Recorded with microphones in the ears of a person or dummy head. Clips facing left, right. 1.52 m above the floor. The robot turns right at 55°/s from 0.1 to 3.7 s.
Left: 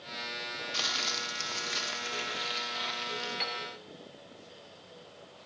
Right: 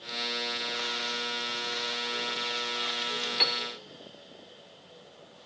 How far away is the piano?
About 0.7 m.